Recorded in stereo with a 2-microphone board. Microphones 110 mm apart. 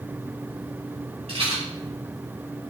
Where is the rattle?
65° right (ahead or behind), 2 m.